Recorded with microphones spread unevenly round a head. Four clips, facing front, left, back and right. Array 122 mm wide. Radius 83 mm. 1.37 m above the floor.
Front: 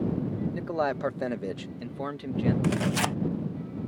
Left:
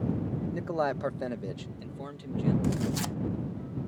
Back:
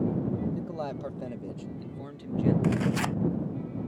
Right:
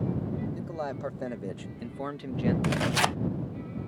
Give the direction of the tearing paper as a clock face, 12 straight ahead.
2 o'clock.